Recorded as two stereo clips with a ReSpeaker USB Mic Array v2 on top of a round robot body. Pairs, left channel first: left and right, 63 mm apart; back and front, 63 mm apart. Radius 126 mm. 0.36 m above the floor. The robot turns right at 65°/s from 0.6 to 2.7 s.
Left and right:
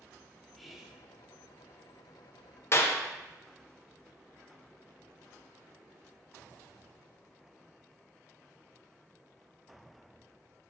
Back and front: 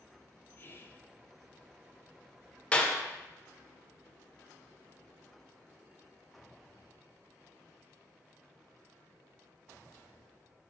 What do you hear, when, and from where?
0.6 s whispering: straight behind, 1.3 m; by 1.0 s 155° right, 1.3 m
2.7 s a clap: 115° left, 1.3 m